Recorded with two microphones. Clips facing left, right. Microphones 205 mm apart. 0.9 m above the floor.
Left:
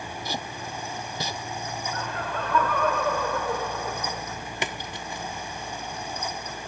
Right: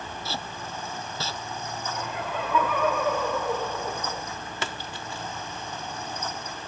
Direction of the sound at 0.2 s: 15° left (ahead or behind).